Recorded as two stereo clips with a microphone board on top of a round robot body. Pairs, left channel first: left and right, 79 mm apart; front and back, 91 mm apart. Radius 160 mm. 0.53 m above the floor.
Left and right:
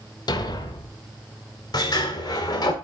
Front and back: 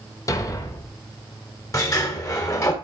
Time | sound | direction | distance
0.3 | a thud | 55° left | 1.1 m
1.7 | a sliding door | 55° left | 2.0 m